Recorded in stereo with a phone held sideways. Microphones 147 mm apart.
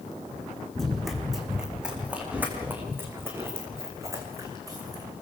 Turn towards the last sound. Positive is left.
turn(degrees=-25)  # may be behind; listen again after turning